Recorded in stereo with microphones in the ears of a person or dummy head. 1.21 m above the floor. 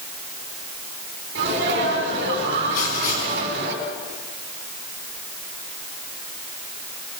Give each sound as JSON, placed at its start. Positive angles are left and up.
{"t": 1.4, "sound": "a sneeze", "side_deg": -60, "distance_m": 7.0}
{"t": 2.7, "sound": "writing", "side_deg": 45, "distance_m": 6.0}